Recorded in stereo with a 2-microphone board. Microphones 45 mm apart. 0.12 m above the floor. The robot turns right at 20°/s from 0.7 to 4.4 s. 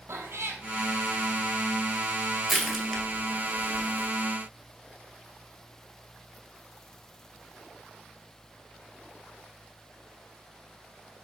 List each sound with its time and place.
0.1 s a cat meowing: 75° right (ahead or behind), 1.0 m
2.5 s crushing: 10° right (ahead or behind), 1.8 m; by 4.1 s 20° left (ahead or behind), 1.8 m